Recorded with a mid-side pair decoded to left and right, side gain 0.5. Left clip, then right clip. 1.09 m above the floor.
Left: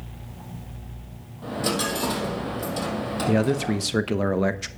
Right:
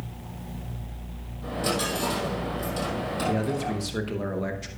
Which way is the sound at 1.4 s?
30° left.